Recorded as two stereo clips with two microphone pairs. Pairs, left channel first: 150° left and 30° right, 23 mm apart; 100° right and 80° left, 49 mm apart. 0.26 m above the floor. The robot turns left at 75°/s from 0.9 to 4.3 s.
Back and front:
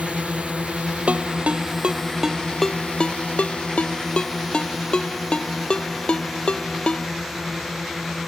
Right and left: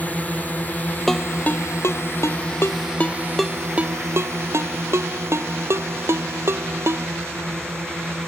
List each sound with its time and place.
0.0 s a drone: 45° right; by 8.3 s 50° left
1.1 s a ringtone: 15° right; by 7.1 s 105° left